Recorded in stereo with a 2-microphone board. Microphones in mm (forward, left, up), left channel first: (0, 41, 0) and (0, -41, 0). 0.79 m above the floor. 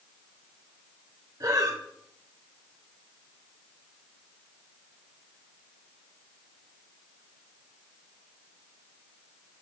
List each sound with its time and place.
1.4 s breathing: 50° right (ahead or behind), 0.9 m